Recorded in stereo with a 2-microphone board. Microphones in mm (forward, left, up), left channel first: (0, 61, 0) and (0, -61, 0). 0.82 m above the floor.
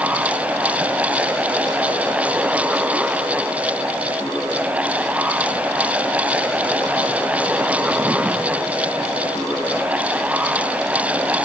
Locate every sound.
Only background noise.